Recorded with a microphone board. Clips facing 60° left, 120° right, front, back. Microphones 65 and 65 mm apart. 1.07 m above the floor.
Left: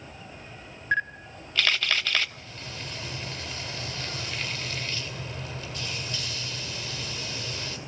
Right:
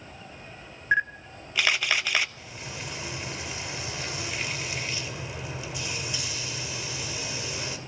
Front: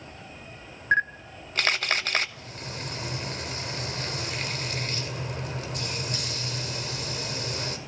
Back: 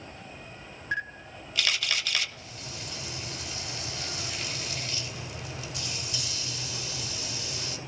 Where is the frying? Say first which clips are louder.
Right 1 dB, front 4 dB; 45° right, 2.5 m.